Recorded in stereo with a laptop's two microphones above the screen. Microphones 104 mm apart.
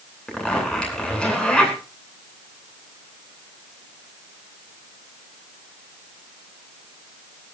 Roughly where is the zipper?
Centre.